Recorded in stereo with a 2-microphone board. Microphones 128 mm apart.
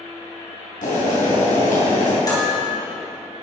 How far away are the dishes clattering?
About 3.5 m.